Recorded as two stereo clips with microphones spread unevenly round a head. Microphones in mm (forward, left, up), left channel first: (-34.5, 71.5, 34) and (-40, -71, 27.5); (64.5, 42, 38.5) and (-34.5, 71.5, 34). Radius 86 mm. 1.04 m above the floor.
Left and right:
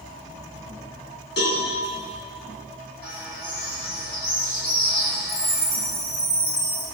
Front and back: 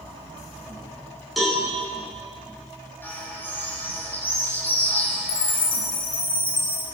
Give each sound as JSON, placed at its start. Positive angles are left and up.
{"t": 1.4, "sound": "a cowbell", "azimuth_deg": 75, "distance_m": 9.0}
{"t": 3.0, "sound": "a bird", "azimuth_deg": 55, "distance_m": 8.0}
{"t": 5.3, "sound": "a chime", "azimuth_deg": 15, "distance_m": 5.0}